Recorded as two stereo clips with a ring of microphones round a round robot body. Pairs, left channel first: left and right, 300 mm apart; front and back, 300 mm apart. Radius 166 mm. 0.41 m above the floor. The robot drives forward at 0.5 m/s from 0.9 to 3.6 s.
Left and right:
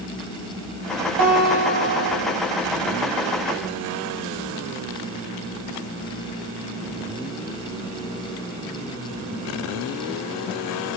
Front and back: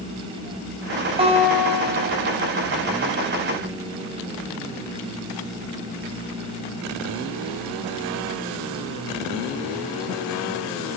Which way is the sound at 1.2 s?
105° right.